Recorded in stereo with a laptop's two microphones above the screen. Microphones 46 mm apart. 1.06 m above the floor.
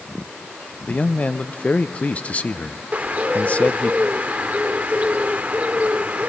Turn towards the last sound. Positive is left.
turn(degrees=-40)  # may be behind; listen again after turning